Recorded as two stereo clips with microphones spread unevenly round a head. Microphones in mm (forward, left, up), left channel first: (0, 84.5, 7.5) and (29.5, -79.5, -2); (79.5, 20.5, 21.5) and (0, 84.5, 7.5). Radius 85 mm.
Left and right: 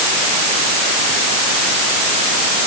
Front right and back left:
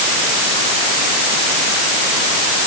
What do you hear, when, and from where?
Only background noise.